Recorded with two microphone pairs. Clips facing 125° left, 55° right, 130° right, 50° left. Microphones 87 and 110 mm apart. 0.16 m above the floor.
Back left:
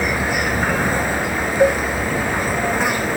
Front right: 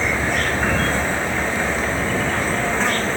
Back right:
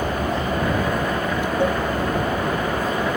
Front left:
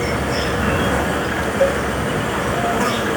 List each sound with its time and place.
0.0 s an insect: 50° left
1.6 s a cowbell: 120° left